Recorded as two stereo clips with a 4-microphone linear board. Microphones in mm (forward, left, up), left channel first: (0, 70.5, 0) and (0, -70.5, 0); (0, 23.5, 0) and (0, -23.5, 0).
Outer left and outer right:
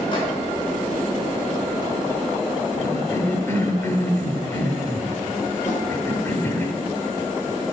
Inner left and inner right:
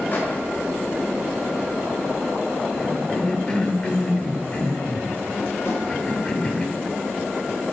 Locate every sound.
0.1 s a microwave: 35° left (ahead or behind), 3 m
2.8 s a cough: 20° left (ahead or behind), 1.1 m
5.7 s a snare drum: 55° left (ahead or behind), 3 m